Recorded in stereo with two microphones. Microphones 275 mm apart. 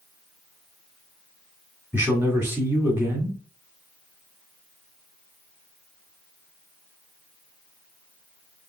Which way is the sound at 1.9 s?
10° right (ahead or behind).